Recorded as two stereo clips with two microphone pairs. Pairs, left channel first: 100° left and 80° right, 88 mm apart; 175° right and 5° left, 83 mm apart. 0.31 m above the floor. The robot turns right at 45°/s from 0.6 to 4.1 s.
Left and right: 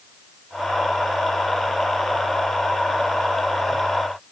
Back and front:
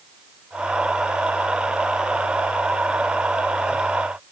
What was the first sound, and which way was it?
Only background noise.